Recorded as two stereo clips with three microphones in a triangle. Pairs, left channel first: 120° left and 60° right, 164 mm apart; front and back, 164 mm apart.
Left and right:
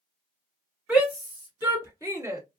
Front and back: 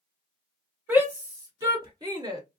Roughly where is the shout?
Behind right.